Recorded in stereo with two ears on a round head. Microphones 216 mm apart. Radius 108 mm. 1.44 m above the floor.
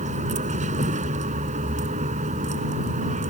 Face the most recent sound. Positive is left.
turn(degrees=-30)  # may be behind; listen again after turning